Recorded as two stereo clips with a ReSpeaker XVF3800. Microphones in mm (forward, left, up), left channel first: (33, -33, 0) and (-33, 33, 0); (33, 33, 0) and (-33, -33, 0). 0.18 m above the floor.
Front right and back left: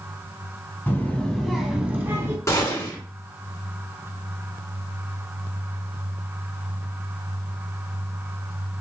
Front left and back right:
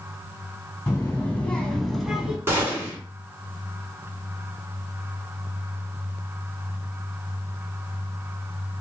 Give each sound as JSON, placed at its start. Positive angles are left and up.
{"t": 0.9, "sound": "a child speaking", "azimuth_deg": 5, "distance_m": 0.9}
{"t": 2.5, "sound": "a gunshot", "azimuth_deg": -85, "distance_m": 1.7}